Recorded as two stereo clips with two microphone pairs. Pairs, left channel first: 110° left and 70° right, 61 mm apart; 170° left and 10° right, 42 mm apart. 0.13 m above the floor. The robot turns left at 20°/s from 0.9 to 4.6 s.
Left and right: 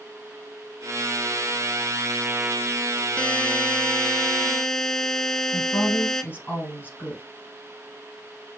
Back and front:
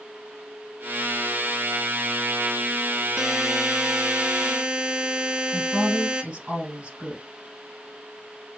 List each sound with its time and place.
3.2 s a buzzer: 65° left, 0.5 m; by 6.2 s 35° left, 0.5 m
5.5 s a woman speaking: 55° left, 3 m